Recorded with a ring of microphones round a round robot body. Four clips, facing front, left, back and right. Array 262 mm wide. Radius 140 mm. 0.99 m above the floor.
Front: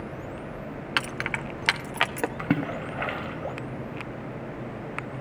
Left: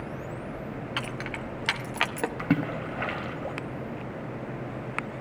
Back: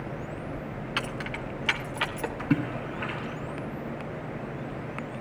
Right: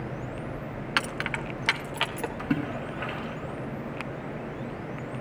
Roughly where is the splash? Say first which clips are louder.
Left 2 dB, back 2 dB; ahead left.